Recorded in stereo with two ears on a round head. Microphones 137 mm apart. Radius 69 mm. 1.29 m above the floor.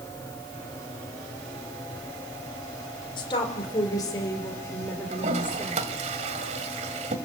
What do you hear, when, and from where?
3.2 s a woman speaking: 30° left (ahead or behind), 5.5 m; by 5.9 s 10° left (ahead or behind), 5.5 m
5.1 s a toilet flushing: 45° right (ahead or behind), 1.9 m